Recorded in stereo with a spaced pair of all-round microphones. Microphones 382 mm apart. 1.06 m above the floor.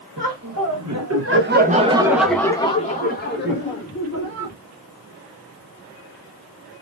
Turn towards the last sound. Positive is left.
turn(degrees=40)  # may be behind; listen again after turning